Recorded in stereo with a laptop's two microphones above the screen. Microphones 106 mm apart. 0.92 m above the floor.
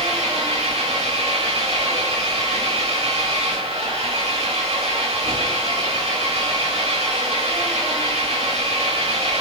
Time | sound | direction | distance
0.0 | an engine running | 80° right | 7.5 m